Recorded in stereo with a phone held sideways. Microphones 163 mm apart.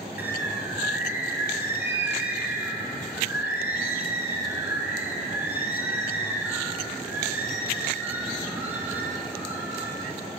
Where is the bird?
10° right (ahead or behind), 0.7 m.